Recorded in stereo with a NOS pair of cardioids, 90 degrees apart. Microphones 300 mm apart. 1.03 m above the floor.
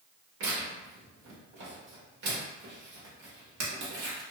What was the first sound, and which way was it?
Tearing paper, 65° right.